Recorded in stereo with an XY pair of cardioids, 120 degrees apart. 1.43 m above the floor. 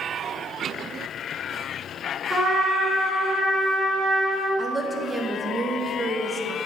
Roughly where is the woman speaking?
Ahead.